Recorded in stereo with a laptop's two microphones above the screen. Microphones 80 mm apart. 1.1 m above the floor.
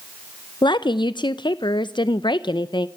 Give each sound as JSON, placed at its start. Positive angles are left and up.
{"t": 0.6, "sound": "a woman speaking", "side_deg": 75, "distance_m": 0.5}